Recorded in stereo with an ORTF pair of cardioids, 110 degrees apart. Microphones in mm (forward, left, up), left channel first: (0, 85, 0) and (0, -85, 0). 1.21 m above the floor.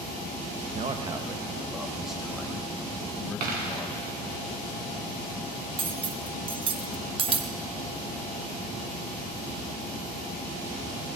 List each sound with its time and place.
0.7 s a man speaking: 45° right, 1.0 m; by 4.0 s 10° left, 4 m
3.4 s a dropped coin: 65° right, 3.5 m
5.8 s cutlery clinking: 35° right, 0.8 m